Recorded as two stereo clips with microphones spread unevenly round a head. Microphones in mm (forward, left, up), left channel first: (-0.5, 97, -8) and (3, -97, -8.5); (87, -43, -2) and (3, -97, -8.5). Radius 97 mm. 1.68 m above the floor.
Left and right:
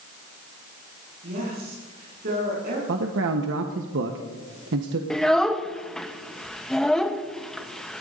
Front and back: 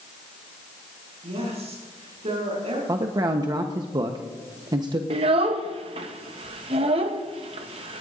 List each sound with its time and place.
1.2 s a woman speaking: 135° right, 6.5 m
2.9 s a man speaking: 100° right, 1.1 m
5.1 s a child speaking: straight behind, 0.9 m